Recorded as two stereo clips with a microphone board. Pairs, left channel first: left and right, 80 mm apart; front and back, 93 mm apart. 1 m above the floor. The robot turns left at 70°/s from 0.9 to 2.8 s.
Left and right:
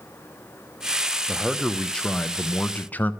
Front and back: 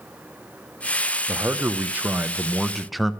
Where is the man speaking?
165° right, 0.6 m; by 3.1 s 90° left, 0.6 m.